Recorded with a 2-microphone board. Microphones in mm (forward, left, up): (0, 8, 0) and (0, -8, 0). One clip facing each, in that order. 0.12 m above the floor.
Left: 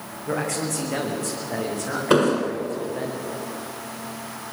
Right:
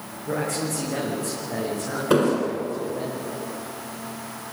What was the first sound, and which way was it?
A man speaking, 20° left (ahead or behind).